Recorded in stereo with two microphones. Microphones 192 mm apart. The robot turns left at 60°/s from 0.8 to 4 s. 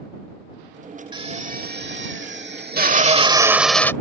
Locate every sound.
1.1 s a drill: 25° right; by 3.9 s 165° left